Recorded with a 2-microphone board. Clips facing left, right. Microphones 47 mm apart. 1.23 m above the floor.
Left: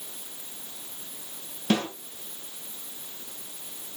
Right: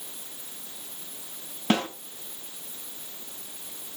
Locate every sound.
1.7 s a snare drum: 35° right (ahead or behind), 5.5 m